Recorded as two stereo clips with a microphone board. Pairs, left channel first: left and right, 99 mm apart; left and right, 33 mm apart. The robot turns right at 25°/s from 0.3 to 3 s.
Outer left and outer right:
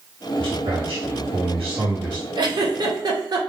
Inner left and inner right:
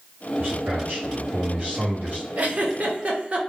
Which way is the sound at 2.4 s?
50° right (ahead or behind).